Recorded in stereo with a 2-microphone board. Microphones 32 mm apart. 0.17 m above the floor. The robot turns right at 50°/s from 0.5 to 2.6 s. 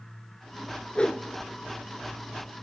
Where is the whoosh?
30° left (ahead or behind), 0.6 m; by 1.3 s 40° left (ahead or behind), 0.6 m.